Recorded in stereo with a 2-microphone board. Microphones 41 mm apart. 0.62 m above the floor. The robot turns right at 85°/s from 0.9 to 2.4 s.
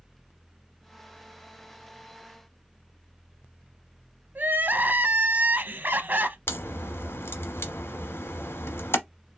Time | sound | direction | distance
4.3 | crying | 50° right (ahead or behind) | 0.6 m
6.5 | a crack | 65° left (ahead or behind) | 1.0 m